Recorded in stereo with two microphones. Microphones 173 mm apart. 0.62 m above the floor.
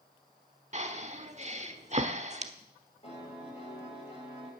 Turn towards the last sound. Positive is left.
turn(degrees=35)  # may be behind; listen again after turning